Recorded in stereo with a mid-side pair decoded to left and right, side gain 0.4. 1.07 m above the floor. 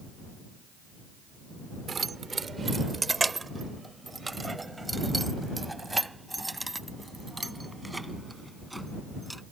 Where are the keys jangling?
45° right; by 9.4 s 5° right.